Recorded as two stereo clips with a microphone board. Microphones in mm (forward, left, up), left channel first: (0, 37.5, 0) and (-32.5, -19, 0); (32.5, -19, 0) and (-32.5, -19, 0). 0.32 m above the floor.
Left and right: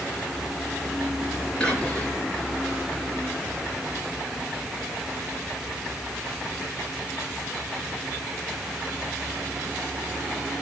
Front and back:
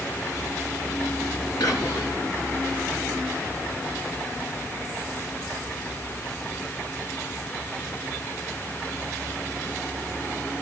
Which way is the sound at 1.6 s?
15° right.